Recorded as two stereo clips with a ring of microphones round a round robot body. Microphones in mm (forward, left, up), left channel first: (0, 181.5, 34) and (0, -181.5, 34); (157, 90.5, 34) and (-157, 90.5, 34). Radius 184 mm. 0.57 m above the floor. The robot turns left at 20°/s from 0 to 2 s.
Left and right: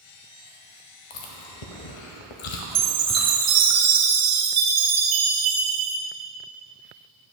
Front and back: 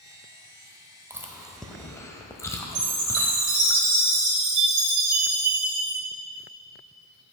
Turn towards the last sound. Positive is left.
turn(degrees=-135)